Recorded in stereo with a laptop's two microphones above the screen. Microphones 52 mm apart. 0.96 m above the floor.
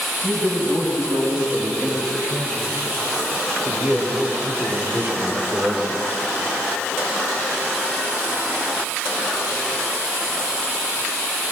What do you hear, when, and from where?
0.2 s a man speaking: 55° right (ahead or behind), 8 m; by 6.0 s 30° right (ahead or behind), 3.5 m